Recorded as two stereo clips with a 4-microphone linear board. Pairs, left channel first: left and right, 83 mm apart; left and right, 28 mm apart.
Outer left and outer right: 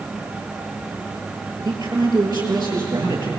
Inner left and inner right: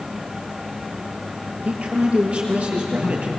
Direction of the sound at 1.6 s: 60° right (ahead or behind).